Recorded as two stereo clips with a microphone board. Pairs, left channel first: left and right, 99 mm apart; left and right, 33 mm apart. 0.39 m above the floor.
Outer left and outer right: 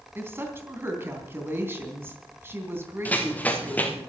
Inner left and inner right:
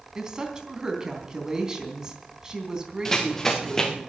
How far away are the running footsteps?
About 3 m.